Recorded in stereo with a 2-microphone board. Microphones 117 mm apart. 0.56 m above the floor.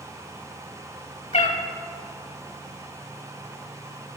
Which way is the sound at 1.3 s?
80° left.